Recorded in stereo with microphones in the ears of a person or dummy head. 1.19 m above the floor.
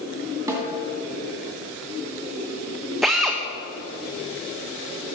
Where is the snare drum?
15° right (ahead or behind), 1.9 m.